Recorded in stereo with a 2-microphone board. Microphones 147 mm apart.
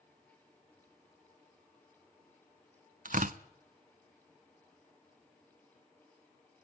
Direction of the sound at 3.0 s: 70° right (ahead or behind).